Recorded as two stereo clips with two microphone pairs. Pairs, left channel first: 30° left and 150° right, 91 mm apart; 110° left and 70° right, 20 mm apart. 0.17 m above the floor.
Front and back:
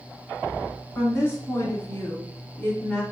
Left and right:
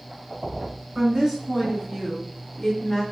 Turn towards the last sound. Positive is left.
turn(degrees=60)